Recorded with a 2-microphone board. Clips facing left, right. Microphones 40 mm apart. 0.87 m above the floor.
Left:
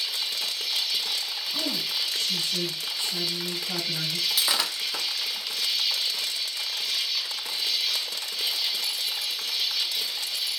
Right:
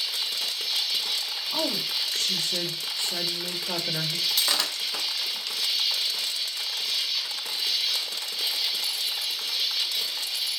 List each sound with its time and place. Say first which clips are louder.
0.0 s an insect: even; centre (ahead or behind), 2.5 m
1.5 s a woman speaking: right 2 dB; 60° right (ahead or behind), 1.2 m
4.3 s breaking glass: left 1 dB; 10° left (ahead or behind), 0.7 m